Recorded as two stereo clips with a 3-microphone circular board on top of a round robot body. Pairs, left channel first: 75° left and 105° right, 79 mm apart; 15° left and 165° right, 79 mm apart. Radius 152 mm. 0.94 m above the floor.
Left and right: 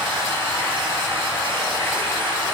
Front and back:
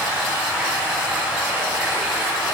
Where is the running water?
90° right, 4 m.